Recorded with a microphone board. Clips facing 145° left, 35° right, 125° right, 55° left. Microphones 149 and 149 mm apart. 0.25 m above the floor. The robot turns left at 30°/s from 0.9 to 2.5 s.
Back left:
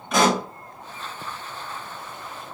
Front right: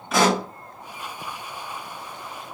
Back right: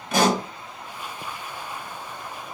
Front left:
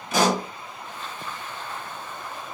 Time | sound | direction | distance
0.1 | a pop | 120° right | 1.2 m